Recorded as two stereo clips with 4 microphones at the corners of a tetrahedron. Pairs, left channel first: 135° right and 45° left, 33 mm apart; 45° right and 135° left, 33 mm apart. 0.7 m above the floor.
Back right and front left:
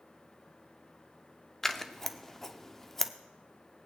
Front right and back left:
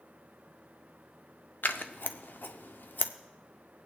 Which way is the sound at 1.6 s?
55° right.